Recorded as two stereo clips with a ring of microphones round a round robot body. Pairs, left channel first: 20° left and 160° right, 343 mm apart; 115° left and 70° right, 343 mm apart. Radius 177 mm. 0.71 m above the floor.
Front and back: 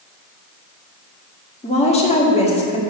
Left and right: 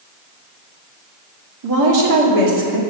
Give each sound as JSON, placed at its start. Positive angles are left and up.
{"t": 1.6, "sound": "a woman speaking", "azimuth_deg": -50, "distance_m": 1.7}